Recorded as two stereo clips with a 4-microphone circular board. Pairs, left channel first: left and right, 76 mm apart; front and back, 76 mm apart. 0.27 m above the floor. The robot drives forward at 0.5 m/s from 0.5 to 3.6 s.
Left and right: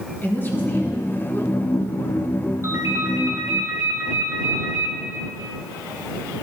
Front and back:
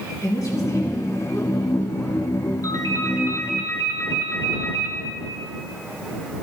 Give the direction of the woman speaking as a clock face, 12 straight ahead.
11 o'clock.